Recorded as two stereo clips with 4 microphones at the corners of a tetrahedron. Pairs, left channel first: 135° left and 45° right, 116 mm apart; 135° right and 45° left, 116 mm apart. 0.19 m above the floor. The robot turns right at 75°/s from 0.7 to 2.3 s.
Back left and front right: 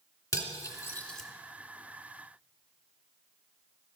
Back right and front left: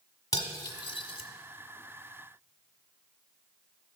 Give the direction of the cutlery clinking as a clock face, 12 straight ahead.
6 o'clock.